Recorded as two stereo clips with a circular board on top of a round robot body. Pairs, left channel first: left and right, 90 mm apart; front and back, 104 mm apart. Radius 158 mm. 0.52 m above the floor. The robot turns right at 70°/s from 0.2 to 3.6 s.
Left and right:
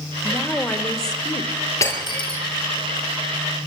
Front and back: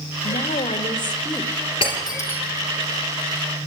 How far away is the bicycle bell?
No bicycle bell in this recording.